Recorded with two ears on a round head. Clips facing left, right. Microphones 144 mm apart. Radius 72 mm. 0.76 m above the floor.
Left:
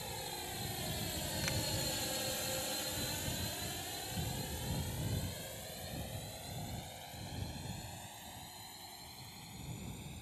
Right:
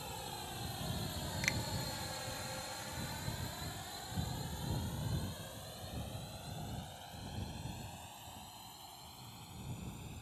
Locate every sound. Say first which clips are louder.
0.0 s a drone: left 1 dB; 15° left (ahead or behind); by 10.2 s 10° left (ahead or behind)
1.4 s a finger snap: even; 20° right (ahead or behind)